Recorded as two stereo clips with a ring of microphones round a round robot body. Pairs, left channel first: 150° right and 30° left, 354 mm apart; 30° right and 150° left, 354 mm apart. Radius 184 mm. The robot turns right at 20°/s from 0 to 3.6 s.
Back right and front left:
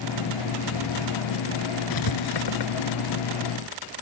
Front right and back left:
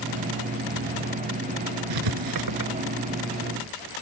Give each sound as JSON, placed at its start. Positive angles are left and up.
{"t": 1.9, "sound": "writing", "azimuth_deg": 175}